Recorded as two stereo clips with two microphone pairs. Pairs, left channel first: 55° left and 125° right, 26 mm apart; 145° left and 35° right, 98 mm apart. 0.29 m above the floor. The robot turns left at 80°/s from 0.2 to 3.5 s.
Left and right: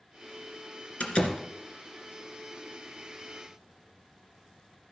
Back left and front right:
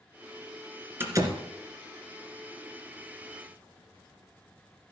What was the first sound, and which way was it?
A door slam, 30° left.